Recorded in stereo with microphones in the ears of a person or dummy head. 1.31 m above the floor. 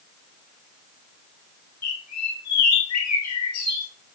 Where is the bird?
85° left, 8.5 m.